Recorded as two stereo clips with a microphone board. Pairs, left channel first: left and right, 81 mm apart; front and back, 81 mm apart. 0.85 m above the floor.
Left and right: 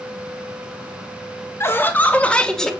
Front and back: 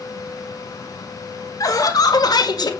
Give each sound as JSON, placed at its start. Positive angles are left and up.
{"t": 1.6, "sound": "laughter", "azimuth_deg": 35, "distance_m": 1.7}